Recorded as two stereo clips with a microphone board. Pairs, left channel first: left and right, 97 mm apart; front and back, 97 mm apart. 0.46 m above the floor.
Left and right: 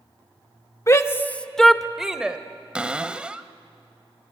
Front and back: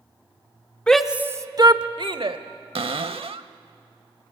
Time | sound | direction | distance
0.9 | a shout | 75° left | 0.8 m
2.8 | a cupboard door | 165° right | 0.7 m